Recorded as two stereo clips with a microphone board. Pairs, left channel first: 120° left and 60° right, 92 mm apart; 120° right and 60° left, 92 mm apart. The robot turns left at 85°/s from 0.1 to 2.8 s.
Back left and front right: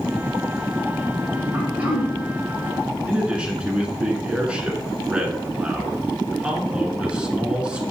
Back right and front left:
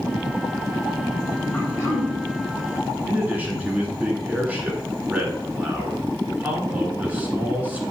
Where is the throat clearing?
85° right, 1.5 m; by 2.1 s 135° right, 1.5 m.